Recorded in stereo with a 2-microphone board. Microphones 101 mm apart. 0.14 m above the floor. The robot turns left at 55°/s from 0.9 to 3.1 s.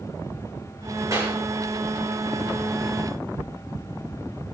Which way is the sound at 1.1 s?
35° right (ahead or behind).